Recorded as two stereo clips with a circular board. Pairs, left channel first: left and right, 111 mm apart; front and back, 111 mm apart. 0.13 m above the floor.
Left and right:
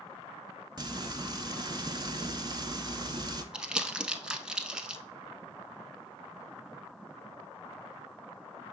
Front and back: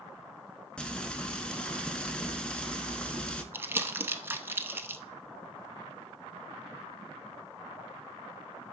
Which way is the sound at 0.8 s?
75° right.